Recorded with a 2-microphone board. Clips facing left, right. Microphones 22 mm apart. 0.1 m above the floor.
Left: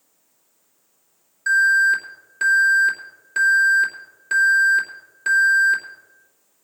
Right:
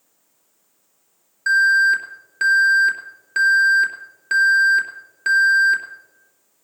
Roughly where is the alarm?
Right.